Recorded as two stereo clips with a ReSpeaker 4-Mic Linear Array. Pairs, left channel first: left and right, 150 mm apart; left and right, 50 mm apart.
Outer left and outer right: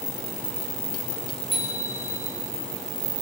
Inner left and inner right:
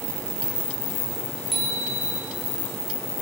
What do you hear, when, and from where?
1.5 s a bicycle bell: centre (ahead or behind), 8.5 m